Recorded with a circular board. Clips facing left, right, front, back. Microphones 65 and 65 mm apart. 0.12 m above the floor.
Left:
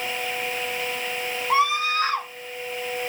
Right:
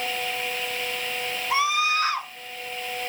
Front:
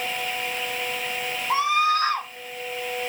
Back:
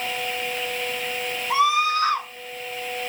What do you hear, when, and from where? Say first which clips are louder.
1.5 s a scream: left 2 dB, back 1 dB; 40° left, 5 m